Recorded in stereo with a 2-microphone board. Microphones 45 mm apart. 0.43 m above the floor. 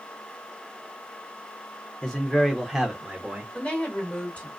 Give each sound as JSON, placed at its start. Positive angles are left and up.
{"t": 2.0, "sound": "a man speaking", "side_deg": 20, "distance_m": 0.8}
{"t": 3.5, "sound": "a woman speaking", "side_deg": 35, "distance_m": 1.8}